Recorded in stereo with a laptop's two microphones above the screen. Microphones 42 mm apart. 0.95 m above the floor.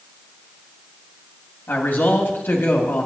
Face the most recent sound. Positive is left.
turn(degrees=45)  # may be behind; listen again after turning